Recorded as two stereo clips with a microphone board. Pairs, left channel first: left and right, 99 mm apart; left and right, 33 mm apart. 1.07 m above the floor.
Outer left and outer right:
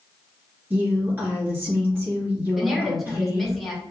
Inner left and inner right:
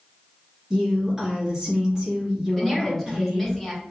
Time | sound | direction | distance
0.7 | a woman speaking | 20° right (ahead or behind) | 1.7 m
2.6 | a woman speaking | centre (ahead or behind) | 1.5 m